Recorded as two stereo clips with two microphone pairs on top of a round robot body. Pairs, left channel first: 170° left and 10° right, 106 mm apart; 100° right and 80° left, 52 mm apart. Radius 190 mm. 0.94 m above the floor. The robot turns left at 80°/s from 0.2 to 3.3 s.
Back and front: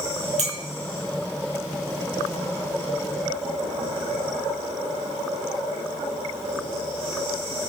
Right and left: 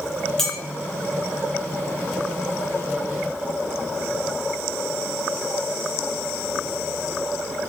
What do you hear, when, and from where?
0.4 s a clink: 15° right, 1.9 m; by 0.6 s 30° right, 1.9 m